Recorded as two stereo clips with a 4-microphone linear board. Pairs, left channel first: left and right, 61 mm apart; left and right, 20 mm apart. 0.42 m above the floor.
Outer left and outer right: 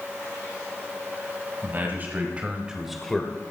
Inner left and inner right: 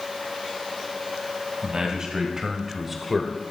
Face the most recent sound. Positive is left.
turn(degrees=20)  # may be behind; listen again after turning